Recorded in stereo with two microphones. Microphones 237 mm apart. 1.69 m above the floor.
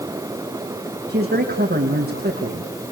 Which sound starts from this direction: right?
A man speaking, at 1.1 s.